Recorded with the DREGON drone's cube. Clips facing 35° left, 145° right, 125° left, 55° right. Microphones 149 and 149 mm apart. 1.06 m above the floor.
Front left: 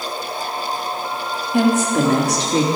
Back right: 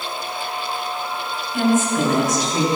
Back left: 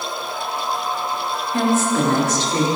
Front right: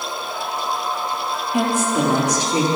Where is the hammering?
No hammering in this recording.